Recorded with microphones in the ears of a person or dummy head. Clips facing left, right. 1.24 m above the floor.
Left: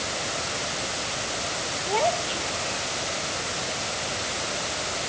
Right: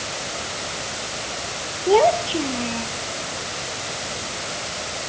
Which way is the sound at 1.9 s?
55° right (ahead or behind).